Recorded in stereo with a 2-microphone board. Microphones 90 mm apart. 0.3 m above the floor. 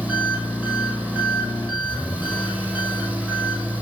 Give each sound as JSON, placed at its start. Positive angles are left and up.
{"t": 0.0, "sound": "an engine running", "side_deg": -10, "distance_m": 4.0}